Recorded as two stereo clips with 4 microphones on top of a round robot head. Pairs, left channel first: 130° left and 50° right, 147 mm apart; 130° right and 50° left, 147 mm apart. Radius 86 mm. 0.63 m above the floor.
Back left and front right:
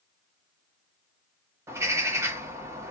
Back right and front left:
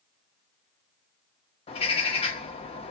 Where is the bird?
115° right, 1.1 m.